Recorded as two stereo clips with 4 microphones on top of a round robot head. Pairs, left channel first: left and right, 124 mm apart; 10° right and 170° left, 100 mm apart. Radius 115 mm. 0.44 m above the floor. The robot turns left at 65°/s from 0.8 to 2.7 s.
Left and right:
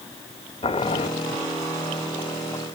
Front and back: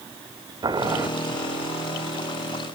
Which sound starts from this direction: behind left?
Boiling, at 0.6 s.